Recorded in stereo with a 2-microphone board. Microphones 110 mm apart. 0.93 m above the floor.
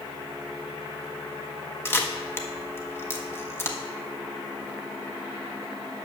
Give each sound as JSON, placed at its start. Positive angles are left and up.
{"t": 1.9, "sound": "a camera shutter", "side_deg": 20, "distance_m": 1.1}